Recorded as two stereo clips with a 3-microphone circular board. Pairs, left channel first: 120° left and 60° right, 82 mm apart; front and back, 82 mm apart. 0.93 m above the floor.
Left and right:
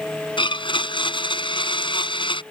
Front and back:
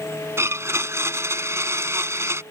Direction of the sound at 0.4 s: 125° left.